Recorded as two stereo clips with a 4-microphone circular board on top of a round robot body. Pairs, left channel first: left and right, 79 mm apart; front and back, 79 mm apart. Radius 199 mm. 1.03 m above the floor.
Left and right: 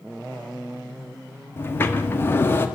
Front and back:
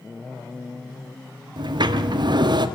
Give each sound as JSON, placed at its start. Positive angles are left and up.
{"t": 1.6, "sound": "a sliding door", "azimuth_deg": 155, "distance_m": 1.5}